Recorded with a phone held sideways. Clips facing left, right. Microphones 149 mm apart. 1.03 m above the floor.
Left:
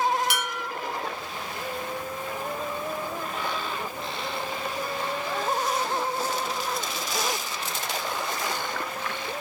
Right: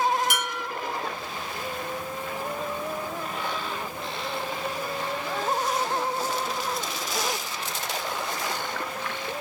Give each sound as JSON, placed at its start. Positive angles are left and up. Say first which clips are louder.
{"t": 0.3, "sound": "dishes clattering", "louder": "even", "side_deg": -45, "distance_m": 0.8}